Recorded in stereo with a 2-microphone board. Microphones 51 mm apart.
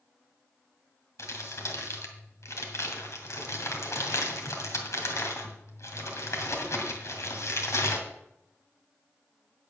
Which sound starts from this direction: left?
Crumpling, at 1.2 s.